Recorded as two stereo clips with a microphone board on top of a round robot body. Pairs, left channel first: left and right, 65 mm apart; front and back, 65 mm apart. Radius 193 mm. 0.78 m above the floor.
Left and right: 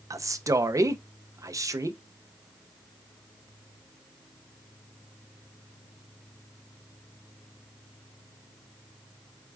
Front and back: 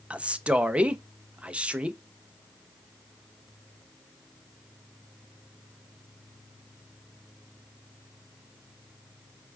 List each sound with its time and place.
0.1 s a man speaking: 110° right, 0.7 m